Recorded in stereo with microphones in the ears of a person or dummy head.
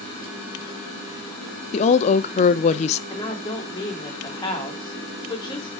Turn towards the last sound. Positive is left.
turn(degrees=20)  # may be behind; listen again after turning